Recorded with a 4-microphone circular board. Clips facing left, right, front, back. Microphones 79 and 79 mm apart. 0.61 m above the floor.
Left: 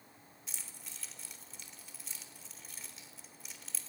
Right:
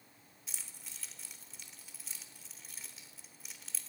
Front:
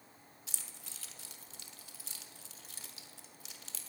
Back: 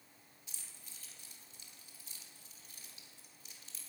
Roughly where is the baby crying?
I don't hear a baby crying.